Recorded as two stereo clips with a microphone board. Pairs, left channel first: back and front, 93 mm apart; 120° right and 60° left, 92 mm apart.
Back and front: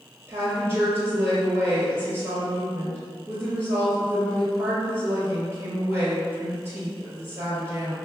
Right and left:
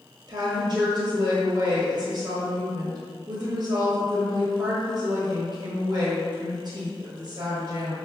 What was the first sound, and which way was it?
A woman speaking, 55° left.